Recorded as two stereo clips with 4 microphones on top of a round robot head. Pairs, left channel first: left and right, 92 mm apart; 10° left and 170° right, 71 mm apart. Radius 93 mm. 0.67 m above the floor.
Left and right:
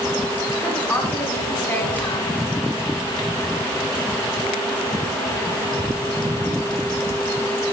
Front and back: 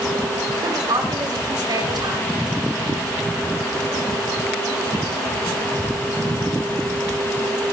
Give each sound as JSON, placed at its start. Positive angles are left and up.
{"t": 0.6, "sound": "a woman speaking", "azimuth_deg": 165, "distance_m": 7.5}